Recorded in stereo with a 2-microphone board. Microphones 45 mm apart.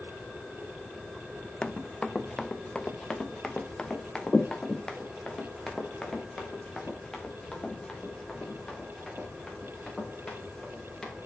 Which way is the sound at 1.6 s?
20° left (ahead or behind).